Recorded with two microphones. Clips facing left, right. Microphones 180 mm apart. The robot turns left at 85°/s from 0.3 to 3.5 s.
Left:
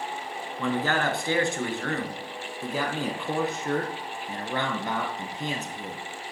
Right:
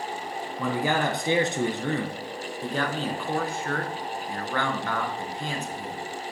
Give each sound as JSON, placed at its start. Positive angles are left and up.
{"t": 0.6, "sound": "a man speaking", "side_deg": -5, "distance_m": 1.2}